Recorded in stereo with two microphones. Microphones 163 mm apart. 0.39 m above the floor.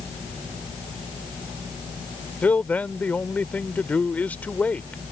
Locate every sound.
2.4 s a man speaking: 10° left (ahead or behind)